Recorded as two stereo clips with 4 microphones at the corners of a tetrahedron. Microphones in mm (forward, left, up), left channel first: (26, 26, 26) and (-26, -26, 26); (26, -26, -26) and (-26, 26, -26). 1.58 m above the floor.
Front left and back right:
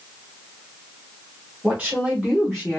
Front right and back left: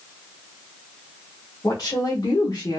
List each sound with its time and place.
1.6 s a woman speaking: 60° right, 1.3 m; by 2.8 s 35° right, 1.0 m